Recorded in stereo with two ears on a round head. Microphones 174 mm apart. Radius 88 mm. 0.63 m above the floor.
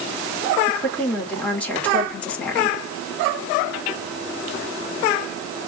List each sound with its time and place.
0.7 s a woman speaking: 5° left (ahead or behind), 1.7 m